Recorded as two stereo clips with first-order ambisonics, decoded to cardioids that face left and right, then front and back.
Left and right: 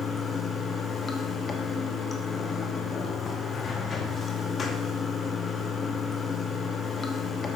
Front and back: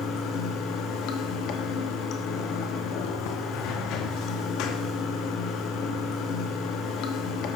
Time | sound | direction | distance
0.0 | running water | 20° left | 0.9 m